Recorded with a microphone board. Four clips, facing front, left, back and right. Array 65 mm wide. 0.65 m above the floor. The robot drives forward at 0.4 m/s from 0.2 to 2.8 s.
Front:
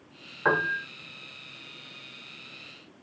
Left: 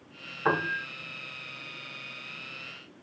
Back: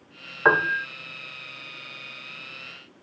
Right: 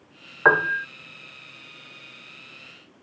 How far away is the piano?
About 1.2 m.